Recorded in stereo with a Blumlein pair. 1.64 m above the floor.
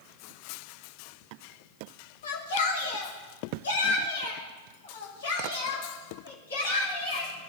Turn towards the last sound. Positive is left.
turn(degrees=70)